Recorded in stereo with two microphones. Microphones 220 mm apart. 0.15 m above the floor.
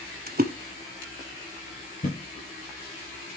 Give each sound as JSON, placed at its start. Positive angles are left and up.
{"t": 0.3, "sound": "a splash", "side_deg": -45, "distance_m": 1.0}
{"t": 2.0, "sound": "a thud", "side_deg": 35, "distance_m": 8.0}